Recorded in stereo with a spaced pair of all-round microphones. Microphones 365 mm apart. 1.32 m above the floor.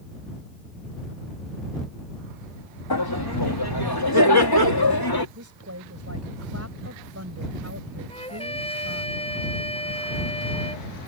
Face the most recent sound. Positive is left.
turn(degrees=15)  # may be behind; listen again after turning